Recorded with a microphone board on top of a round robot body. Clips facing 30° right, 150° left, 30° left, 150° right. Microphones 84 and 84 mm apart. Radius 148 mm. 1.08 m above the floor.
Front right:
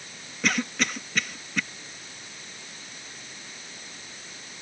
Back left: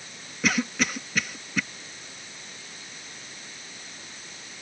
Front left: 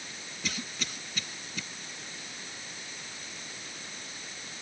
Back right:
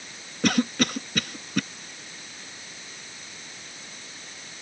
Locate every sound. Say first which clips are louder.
0.4 s a cough: back left 1 dB, back right 17 dB; 125° right